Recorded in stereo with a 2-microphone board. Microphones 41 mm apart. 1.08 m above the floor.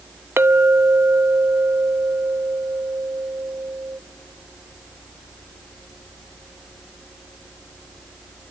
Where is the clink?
70° right (ahead or behind), 0.6 m.